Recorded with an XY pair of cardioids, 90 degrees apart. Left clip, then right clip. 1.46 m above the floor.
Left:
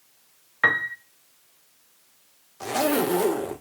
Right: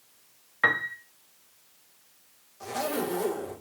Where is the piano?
15° left, 0.6 m.